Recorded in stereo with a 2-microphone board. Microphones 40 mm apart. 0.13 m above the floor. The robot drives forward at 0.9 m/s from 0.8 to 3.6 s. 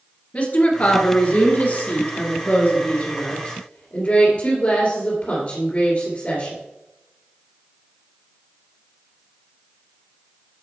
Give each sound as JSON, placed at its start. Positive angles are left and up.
{"t": 0.3, "sound": "a woman speaking", "side_deg": 35, "distance_m": 2.0}